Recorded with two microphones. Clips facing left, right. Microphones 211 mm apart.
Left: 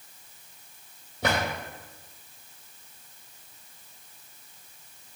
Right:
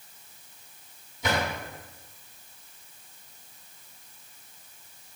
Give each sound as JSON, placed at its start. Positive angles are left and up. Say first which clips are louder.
{"t": 1.2, "sound": "a drawer", "louder": "left 1 dB", "side_deg": 70, "distance_m": 4.5}